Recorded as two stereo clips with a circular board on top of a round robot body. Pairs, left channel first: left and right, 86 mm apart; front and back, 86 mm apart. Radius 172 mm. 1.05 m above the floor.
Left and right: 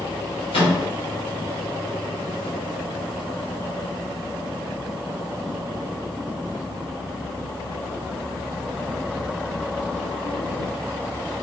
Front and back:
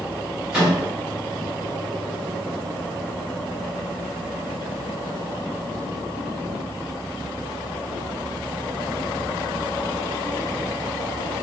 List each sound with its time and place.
0.5 s a microwave: 100° left, 1.7 m